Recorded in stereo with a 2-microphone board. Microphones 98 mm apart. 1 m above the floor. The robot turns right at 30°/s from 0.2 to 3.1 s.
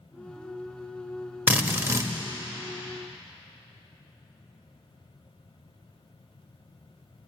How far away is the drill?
About 1.1 m.